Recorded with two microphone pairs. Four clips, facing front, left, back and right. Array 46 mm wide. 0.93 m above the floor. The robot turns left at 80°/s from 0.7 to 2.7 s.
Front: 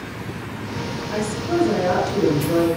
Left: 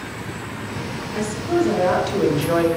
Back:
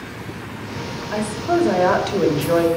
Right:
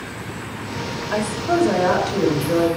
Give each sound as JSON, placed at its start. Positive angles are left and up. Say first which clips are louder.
{"t": 1.1, "sound": "a woman speaking", "louder": "right 1 dB, back 3 dB", "azimuth_deg": -110, "distance_m": 3.0}